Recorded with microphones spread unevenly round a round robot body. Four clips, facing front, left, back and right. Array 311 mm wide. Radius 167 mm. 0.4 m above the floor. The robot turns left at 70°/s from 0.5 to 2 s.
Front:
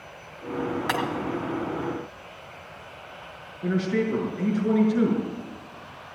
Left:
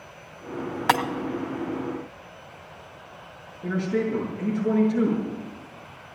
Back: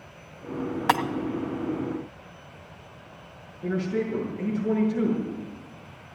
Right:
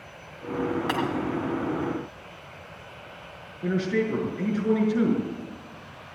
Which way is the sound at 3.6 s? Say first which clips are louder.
Even, front 2 dB; 75° right.